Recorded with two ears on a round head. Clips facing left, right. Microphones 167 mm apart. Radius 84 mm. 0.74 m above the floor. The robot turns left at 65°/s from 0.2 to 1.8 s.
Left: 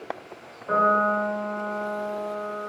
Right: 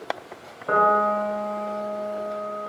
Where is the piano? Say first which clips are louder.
Right 2 dB; 95° right, 0.7 m; by 2.7 s 165° right, 0.7 m.